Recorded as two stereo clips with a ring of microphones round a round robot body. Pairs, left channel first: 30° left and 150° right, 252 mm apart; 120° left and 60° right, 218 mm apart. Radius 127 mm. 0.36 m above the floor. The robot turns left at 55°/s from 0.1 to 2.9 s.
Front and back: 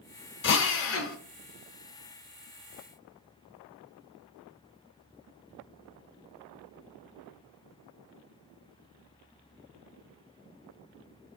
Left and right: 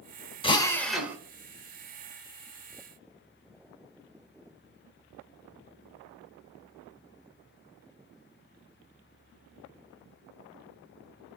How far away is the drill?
About 0.5 m.